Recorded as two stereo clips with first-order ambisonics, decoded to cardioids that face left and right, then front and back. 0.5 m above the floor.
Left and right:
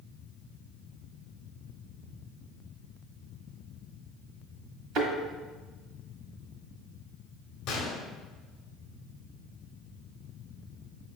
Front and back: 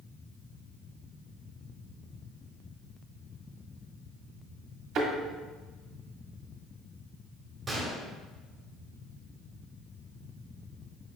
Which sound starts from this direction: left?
A gunshot, at 7.7 s.